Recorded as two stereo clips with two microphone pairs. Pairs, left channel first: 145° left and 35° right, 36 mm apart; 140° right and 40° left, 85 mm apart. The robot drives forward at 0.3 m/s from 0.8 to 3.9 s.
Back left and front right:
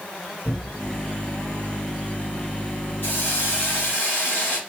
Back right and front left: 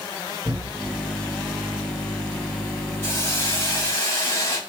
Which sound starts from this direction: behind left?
A cupboard door, at 0.5 s.